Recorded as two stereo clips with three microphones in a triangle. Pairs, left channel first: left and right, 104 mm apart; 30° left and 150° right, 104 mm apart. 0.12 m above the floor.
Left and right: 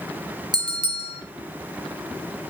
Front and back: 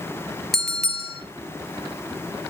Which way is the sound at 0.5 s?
55° right.